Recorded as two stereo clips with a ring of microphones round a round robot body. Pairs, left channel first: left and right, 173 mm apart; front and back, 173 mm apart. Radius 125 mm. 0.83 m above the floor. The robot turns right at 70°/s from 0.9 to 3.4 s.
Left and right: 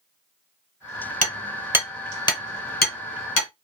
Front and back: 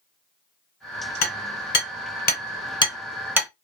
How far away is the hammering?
About 1.0 m.